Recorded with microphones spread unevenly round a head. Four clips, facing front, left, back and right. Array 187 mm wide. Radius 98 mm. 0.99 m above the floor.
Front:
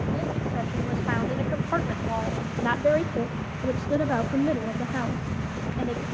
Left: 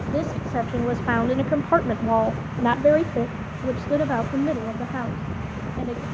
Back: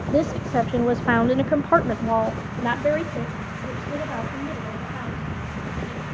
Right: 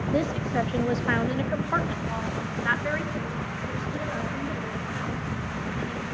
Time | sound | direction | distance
0.1 | a woman speaking | 175° right | 1.8 m